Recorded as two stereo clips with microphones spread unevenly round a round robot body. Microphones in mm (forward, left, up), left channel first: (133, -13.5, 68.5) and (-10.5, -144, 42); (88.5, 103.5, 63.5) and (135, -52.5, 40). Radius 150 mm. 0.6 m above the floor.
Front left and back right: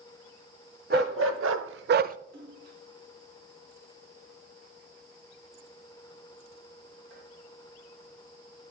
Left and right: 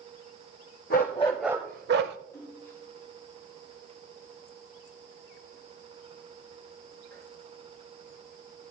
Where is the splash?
175° right, 2.5 m.